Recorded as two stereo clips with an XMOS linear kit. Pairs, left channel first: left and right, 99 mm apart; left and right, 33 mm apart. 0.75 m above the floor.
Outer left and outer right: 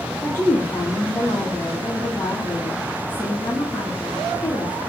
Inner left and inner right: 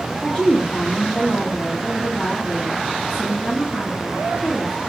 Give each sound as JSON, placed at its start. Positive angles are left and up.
{"t": 0.2, "sound": "a woman speaking", "side_deg": 25, "distance_m": 0.7}